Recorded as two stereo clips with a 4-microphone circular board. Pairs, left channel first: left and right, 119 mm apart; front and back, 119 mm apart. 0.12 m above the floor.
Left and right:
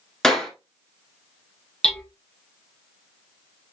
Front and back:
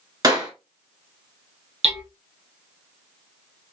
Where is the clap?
170° left, 1.5 m.